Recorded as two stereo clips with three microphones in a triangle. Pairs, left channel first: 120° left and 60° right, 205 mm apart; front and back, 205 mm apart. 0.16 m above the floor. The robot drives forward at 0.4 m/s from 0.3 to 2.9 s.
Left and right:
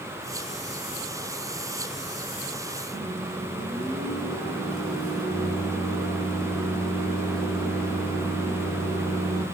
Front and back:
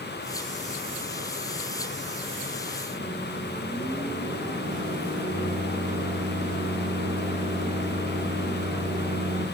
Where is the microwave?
155° right, 1.1 m.